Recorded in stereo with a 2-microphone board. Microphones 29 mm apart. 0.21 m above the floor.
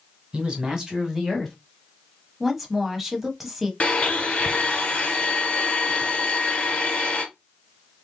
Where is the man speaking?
35° right (ahead or behind), 1.9 m; by 1.6 s 5° left (ahead or behind), 1.7 m.